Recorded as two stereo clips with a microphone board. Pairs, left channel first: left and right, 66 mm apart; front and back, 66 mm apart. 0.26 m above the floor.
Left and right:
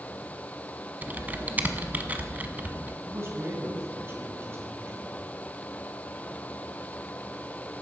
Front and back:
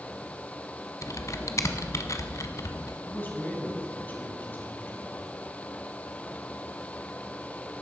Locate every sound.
1.0 s typing on a keyboard: 30° right, 0.9 m
3.0 s a man speaking: 55° right, 2.5 m